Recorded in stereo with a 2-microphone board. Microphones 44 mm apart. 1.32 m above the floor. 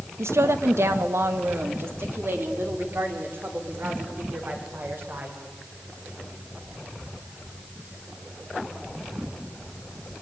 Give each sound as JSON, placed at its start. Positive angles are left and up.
{"t": 0.2, "sound": "a woman speaking", "side_deg": -80, "distance_m": 1.4}